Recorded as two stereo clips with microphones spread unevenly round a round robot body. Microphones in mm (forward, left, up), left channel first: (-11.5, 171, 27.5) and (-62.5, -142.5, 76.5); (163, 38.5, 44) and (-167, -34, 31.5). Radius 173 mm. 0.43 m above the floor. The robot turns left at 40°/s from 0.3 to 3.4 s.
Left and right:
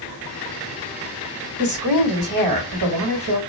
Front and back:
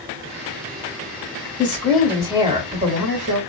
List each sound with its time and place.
1.6 s a woman speaking: 65° right, 2 m; by 3.4 s 135° right, 2 m